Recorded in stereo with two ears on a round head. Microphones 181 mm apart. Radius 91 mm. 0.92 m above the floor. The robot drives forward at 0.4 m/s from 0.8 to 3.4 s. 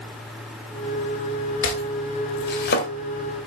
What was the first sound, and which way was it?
Chopping, 60° left (ahead or behind).